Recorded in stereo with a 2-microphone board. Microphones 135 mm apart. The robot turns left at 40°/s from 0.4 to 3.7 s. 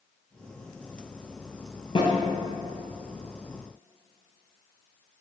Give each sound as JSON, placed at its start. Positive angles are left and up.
{"t": 1.9, "sound": "a snare drum", "side_deg": 35, "distance_m": 1.0}